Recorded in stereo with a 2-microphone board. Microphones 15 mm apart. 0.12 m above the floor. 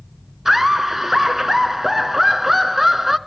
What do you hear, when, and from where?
0.5 s laughter: 20° right (ahead or behind), 1.1 m